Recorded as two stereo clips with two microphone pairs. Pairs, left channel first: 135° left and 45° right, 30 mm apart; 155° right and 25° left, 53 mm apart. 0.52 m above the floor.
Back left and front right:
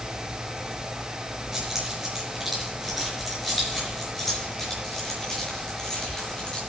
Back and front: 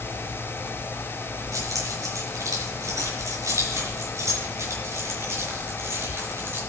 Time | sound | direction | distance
1.5 | keys jangling | 30° left | 5 m